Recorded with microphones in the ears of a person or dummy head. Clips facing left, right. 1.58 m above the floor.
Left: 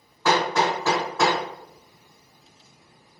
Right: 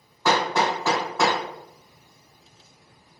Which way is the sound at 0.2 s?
Centre (ahead or behind).